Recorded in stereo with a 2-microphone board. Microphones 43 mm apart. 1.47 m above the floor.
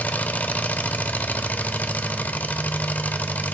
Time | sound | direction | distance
0.0 | an engine running | 40° left (ahead or behind) | 0.7 m